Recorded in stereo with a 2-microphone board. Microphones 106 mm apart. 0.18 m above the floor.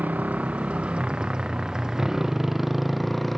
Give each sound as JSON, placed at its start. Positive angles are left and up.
{"t": 0.0, "sound": "a motorcycle", "side_deg": -15}